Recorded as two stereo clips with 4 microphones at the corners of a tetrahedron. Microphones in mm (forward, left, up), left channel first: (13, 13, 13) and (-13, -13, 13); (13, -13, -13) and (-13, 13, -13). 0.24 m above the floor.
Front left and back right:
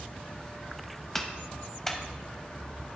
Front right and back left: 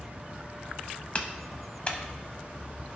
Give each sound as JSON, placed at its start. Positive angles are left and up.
{"t": 1.1, "sound": "a clap", "azimuth_deg": -25, "distance_m": 0.9}